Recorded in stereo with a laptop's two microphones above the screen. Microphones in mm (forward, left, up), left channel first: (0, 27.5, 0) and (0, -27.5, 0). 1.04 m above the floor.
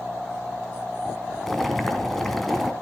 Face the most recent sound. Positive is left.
turn(degrees=5)  # may be behind; listen again after turning